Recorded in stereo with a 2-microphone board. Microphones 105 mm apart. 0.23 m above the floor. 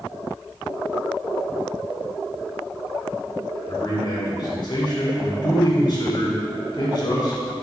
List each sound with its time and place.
3.7 s a man speaking: 45° left (ahead or behind), 2 m